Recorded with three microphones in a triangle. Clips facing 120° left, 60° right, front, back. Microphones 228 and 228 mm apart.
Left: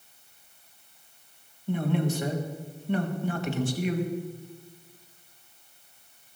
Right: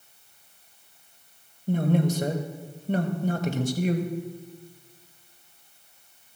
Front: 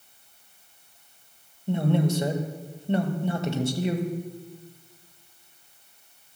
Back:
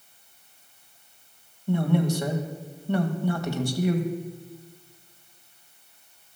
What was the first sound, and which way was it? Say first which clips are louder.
A man speaking: right 3 dB, even; 55° right.